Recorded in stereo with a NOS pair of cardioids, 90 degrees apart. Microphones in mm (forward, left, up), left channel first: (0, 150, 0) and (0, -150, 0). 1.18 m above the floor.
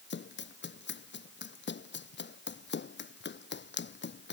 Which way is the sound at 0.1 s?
40° left.